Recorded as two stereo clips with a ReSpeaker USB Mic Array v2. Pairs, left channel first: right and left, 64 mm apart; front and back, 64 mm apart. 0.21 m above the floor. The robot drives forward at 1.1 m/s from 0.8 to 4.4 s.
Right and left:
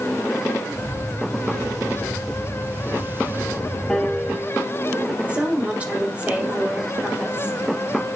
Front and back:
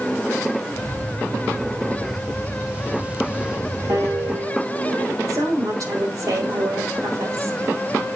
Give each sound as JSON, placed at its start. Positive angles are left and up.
{"t": 3.9, "sound": "a piano", "azimuth_deg": -175, "distance_m": 3.5}
{"t": 5.3, "sound": "a woman speaking", "azimuth_deg": 155, "distance_m": 6.5}